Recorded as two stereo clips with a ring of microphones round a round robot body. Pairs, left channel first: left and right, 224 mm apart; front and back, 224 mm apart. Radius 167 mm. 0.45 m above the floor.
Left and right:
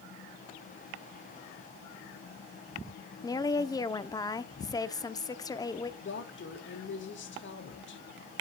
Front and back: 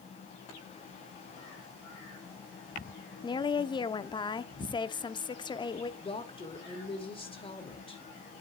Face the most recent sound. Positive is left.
turn(degrees=65)